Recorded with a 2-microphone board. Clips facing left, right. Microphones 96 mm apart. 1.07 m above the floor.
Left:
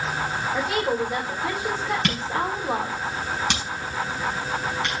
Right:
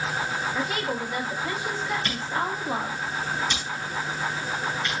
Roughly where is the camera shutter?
Left.